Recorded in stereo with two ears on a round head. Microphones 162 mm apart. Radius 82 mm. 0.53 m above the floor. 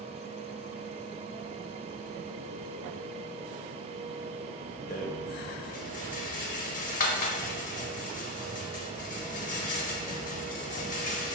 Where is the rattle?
45° left (ahead or behind), 0.7 m.